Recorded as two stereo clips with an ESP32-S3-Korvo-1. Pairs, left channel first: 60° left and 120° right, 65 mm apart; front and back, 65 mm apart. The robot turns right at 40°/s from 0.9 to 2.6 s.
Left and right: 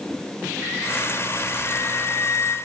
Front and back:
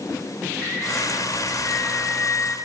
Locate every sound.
1.6 s a flute: 25° left, 2 m; by 2.5 s 60° left, 2 m